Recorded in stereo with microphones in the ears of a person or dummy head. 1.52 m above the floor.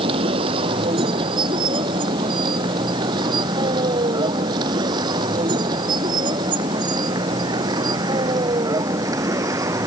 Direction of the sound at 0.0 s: 35° right (ahead or behind).